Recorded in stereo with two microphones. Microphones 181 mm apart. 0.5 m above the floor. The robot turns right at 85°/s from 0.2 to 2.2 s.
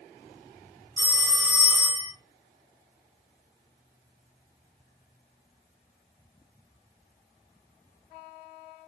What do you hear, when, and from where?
1.0 s a phone ringing: 60° right, 2.5 m; by 2.1 s 35° left, 2.5 m